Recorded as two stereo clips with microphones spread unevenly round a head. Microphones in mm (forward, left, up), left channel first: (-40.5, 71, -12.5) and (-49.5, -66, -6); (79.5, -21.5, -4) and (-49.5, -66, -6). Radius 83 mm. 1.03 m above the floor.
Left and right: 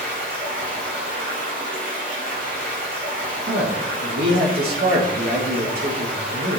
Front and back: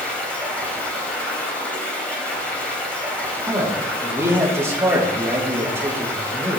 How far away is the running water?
About 3 m.